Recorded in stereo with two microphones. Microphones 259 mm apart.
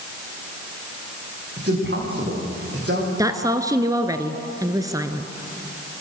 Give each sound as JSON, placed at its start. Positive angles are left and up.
{"t": 1.6, "sound": "a man speaking", "side_deg": -45, "distance_m": 8.5}
{"t": 3.2, "sound": "a woman speaking", "side_deg": -15, "distance_m": 1.5}